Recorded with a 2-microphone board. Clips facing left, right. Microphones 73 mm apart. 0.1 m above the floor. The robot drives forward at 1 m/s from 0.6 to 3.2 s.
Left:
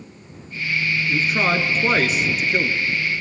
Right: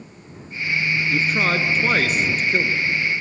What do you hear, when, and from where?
1.1 s a man speaking: 5° left (ahead or behind), 1.4 m; by 2.9 s centre (ahead or behind), 1.7 m